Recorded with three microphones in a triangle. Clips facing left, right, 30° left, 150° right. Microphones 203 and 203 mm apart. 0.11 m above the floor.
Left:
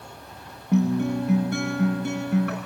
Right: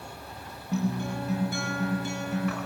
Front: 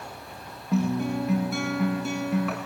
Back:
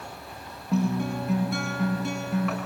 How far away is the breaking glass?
No breaking glass in this recording.